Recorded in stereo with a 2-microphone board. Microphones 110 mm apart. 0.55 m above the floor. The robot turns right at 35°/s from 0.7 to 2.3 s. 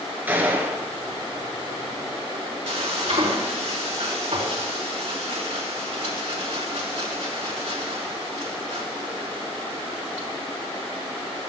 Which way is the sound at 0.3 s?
15° right (ahead or behind).